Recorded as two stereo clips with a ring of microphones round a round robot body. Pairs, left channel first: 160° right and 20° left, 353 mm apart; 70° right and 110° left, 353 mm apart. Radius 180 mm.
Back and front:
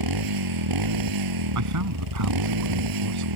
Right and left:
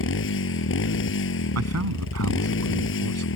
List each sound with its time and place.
0.0 s a motorcycle: 10° right
1.6 s a man speaking: 65° left